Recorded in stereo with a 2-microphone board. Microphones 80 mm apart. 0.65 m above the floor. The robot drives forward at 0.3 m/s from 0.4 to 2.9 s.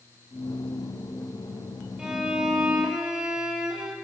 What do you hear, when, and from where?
2.0 s a violin: 10° right (ahead or behind), 6.5 m